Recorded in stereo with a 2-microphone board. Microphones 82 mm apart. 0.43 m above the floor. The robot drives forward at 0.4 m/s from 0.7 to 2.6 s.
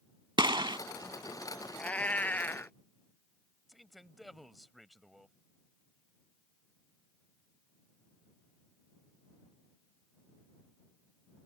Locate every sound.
0.4 s a gunshot: 70° right (ahead or behind)
1.8 s a cat meowing: 15° left (ahead or behind); by 2.7 s 25° left (ahead or behind)
3.7 s a man speaking: centre (ahead or behind)